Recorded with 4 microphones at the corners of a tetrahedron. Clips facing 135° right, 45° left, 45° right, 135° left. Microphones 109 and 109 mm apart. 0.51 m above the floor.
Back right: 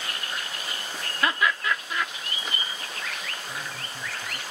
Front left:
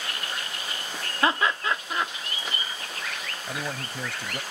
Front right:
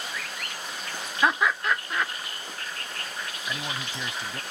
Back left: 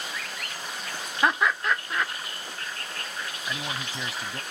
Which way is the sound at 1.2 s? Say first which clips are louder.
Front left 1 dB, even; 45° left.